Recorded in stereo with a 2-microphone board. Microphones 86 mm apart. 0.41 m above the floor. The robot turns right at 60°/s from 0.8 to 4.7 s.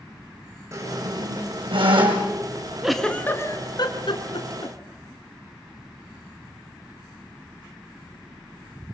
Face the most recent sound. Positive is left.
turn(degrees=75)  # may be behind; listen again after turning